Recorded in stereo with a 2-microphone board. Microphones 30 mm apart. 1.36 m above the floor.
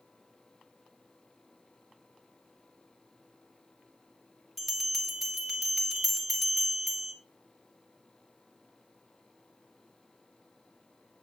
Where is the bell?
5° right (ahead or behind), 3 m.